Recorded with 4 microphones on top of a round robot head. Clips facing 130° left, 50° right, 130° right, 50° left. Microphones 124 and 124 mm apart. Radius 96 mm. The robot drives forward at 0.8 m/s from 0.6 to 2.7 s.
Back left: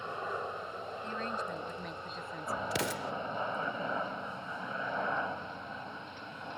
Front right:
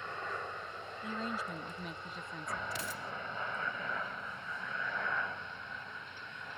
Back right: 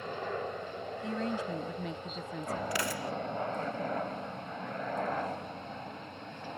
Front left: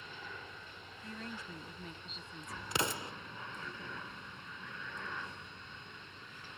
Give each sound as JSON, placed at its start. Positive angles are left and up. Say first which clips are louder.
{"t": 0.0, "sound": "a helicopter", "louder": "back left 4 dB, back right 14 dB", "azimuth_deg": -160}
{"t": 1.0, "sound": "a woman speaking", "louder": "even, back right 12 dB", "azimuth_deg": -130}
{"t": 2.7, "sound": "an explosion", "louder": "back left 7 dB, back right 3 dB", "azimuth_deg": 115}